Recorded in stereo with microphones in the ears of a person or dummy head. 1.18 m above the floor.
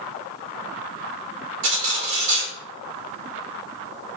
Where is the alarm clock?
I don't hear an alarm clock.